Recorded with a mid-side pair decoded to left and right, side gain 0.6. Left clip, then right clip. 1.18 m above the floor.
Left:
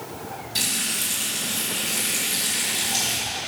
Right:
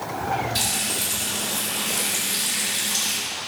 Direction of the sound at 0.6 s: Straight ahead.